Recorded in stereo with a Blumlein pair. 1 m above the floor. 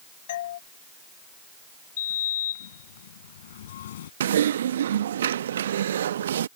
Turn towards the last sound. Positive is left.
turn(degrees=-65)